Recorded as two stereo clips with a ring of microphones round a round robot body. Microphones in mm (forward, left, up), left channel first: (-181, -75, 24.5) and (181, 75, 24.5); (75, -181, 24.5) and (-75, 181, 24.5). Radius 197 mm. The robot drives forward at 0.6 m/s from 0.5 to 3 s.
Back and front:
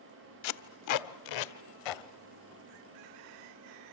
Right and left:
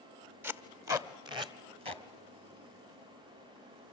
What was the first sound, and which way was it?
Tape being pulled, 165° right.